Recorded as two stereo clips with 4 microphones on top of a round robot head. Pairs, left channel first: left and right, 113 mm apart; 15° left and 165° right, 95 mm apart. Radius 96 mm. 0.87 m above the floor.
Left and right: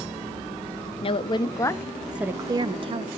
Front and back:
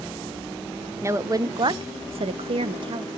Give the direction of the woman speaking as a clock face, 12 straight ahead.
8 o'clock.